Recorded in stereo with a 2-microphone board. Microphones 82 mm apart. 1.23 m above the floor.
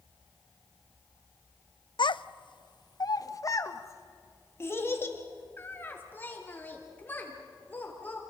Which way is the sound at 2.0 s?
75° left (ahead or behind).